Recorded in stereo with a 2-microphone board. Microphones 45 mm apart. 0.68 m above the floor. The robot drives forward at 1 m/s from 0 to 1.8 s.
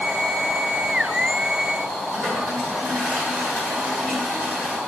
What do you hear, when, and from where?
2.1 s a toilet flushing: 20° right (ahead or behind), 8.5 m